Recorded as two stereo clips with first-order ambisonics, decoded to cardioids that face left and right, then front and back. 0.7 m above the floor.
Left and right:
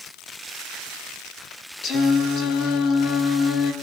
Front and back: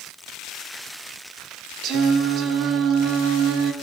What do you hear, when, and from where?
1.8 s singing: 140° left, 1.1 m